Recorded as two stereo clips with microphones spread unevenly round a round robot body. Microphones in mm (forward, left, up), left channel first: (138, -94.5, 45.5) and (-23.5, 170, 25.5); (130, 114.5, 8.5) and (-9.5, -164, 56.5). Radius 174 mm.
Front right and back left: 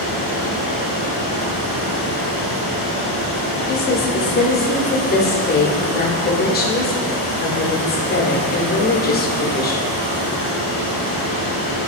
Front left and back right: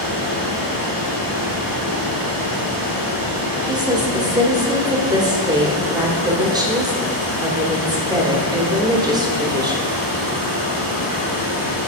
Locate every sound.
0.0 s running water: 170° right, 1.9 m
3.7 s a woman speaking: 35° right, 1.0 m